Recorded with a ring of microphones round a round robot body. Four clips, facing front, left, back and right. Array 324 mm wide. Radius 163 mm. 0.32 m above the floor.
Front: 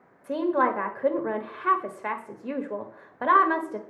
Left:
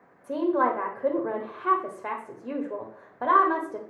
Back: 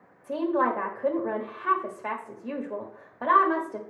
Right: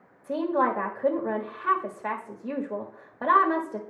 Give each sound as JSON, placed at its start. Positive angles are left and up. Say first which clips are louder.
{"t": 0.2, "sound": "a woman speaking", "louder": "left 1 dB, front 1 dB", "azimuth_deg": 5, "distance_m": 1.4}